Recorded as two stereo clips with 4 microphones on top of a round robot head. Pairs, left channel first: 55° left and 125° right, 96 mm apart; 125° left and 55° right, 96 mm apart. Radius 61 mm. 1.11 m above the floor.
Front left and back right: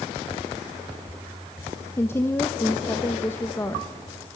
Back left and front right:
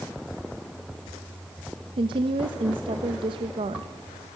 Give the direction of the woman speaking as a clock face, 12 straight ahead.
12 o'clock.